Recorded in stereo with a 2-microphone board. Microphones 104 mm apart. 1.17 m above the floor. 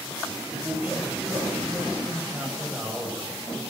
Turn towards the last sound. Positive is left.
turn(degrees=-15)  # may be behind; listen again after turning